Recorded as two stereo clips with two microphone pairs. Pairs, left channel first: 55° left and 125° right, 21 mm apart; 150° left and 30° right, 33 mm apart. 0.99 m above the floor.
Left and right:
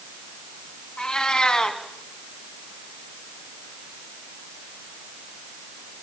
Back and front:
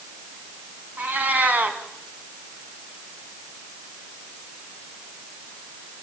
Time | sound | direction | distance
1.0 | a cat meowing | 10° left | 2.5 m